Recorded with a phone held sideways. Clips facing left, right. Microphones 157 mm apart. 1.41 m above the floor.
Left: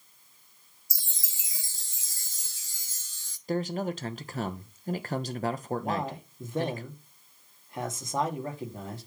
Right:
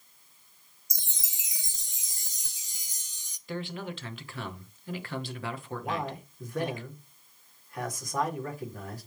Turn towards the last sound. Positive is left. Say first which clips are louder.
# left 2 dB
turn(degrees=25)  # may be behind; listen again after turning